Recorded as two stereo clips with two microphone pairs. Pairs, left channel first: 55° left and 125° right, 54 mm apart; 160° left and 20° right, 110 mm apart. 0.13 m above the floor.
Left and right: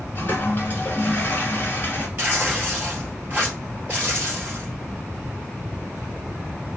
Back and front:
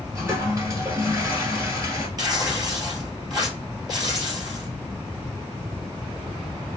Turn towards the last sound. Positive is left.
turn(degrees=-70)